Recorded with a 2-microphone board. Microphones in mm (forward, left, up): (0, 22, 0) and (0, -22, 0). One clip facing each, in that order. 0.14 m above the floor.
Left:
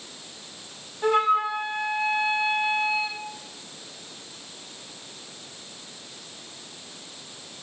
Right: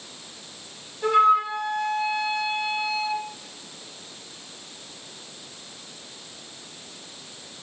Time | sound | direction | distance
1.0 | a flute | 15° left (ahead or behind) | 1.0 m